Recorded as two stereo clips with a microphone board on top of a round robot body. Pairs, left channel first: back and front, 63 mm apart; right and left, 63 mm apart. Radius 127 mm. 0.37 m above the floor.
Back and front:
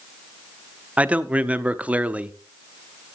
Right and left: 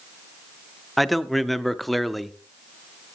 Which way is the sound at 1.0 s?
Straight ahead.